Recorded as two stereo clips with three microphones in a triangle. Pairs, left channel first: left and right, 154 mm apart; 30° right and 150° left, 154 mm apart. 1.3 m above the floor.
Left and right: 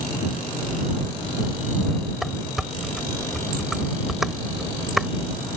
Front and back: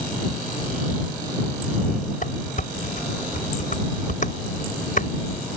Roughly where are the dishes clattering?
Ahead.